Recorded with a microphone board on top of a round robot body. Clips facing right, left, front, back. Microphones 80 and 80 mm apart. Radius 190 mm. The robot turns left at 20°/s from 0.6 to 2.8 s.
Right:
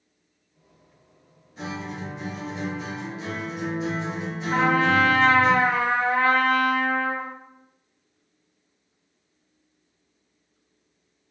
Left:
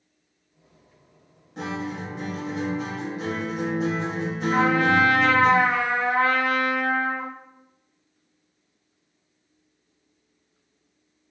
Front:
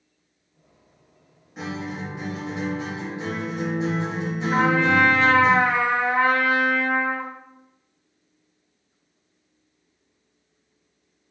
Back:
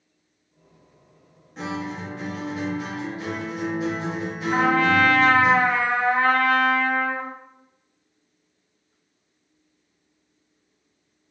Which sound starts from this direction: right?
A trumpet, at 4.5 s.